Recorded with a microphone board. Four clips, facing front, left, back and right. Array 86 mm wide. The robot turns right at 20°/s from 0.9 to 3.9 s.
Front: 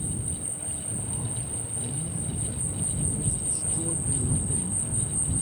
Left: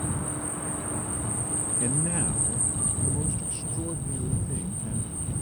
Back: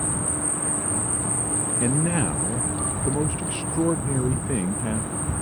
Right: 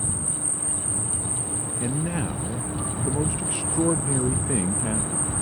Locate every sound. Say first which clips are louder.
0.0 s an insect: left 2 dB, back 8 dB; 165° left; by 5.4 s 135° right
1.8 s a man speaking: right 3 dB, back 14 dB; 175° right; by 5.3 s 135° right